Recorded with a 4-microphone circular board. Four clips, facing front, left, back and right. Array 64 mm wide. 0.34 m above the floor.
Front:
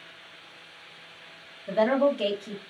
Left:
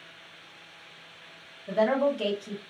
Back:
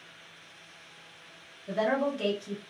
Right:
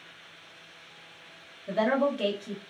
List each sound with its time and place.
1.7 s a woman speaking: 30° right, 1.1 m